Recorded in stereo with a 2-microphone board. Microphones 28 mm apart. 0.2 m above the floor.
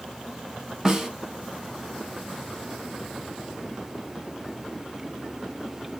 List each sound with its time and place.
0.8 s a snare drum: 25° right (ahead or behind), 0.9 m